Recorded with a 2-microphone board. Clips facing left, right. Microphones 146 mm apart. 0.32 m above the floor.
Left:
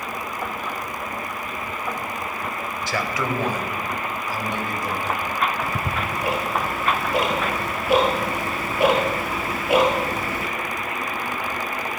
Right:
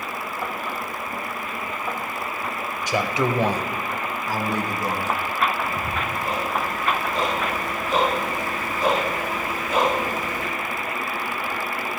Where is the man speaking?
15° right (ahead or behind), 0.9 m; by 5.1 s 45° right (ahead or behind), 2.5 m.